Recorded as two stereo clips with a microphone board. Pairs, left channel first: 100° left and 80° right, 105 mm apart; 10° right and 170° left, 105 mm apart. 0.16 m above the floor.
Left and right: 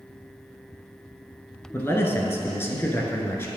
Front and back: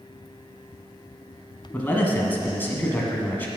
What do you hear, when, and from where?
1.7 s a man speaking: 50° left, 1.6 m